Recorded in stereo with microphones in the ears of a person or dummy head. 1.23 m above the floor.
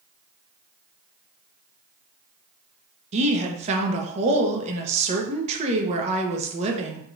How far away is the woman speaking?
About 0.9 m.